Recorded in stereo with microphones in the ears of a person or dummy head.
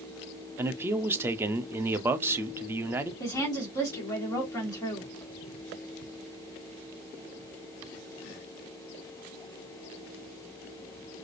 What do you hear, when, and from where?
0.6 s a man speaking: 10° right (ahead or behind), 0.6 m
3.2 s a woman speaking: 15° left (ahead or behind), 1.9 m